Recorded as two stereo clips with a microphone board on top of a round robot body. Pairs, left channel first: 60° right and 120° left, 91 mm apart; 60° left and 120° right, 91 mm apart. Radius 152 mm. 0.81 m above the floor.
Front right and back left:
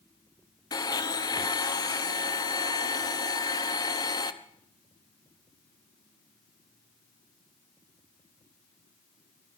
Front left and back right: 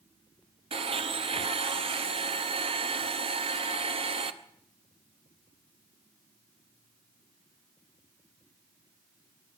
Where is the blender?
105° right, 0.9 m.